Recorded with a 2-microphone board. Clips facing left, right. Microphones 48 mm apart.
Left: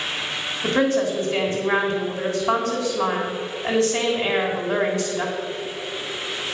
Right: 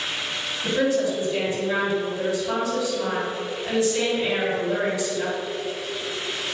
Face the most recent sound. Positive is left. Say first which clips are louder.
# left 2 dB
turn(degrees=50)  # may be behind; listen again after turning